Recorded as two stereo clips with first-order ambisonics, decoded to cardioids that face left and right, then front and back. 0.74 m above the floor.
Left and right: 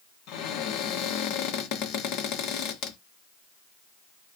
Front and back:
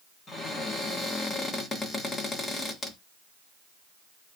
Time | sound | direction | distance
0.3 | a cupboard door | 70° left | 0.7 m